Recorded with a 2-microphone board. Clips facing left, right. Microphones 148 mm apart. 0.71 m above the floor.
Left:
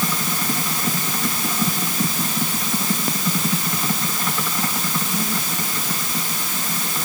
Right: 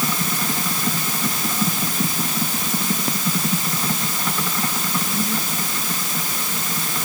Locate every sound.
Only background noise.